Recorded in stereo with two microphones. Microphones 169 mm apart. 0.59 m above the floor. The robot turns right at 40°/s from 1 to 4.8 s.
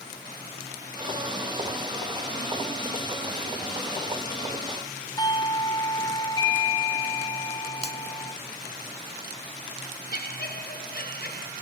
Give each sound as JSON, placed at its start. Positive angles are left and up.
{"t": 5.2, "sound": "a doorbell", "side_deg": 25, "distance_m": 1.3}
{"t": 7.8, "sound": "a finger snap", "side_deg": -35, "distance_m": 1.0}
{"t": 10.1, "sound": "laughter", "side_deg": 70, "distance_m": 2.5}